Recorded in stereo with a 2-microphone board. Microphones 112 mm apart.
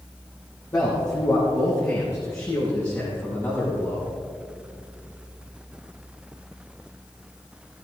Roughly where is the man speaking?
Left.